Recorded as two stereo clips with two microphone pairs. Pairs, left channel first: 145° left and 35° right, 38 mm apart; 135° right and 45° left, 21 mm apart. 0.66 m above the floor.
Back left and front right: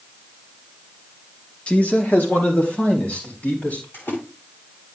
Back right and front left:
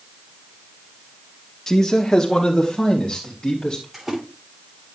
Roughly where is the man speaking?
Behind.